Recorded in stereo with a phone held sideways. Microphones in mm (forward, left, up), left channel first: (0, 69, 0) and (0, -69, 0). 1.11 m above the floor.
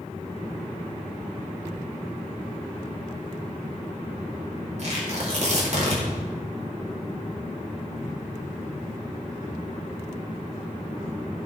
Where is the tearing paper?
55° right (ahead or behind), 4.5 m.